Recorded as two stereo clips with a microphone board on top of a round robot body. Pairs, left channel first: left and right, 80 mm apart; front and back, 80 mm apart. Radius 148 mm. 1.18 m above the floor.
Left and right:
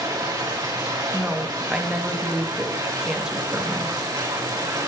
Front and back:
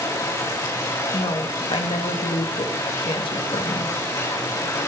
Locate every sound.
0.0 s running water: 45° right, 4 m
1.1 s a woman speaking: 10° right, 2.5 m